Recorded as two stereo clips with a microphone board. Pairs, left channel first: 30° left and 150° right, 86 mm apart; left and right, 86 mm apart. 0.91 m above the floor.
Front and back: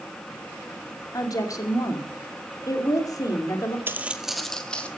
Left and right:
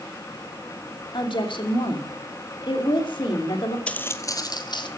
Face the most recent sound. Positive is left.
turn(degrees=105)